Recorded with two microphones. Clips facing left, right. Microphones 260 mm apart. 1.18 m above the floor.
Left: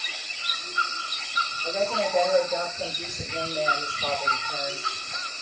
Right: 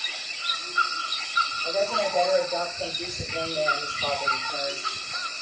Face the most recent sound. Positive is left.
turn(degrees=0)  # may be behind; listen again after turning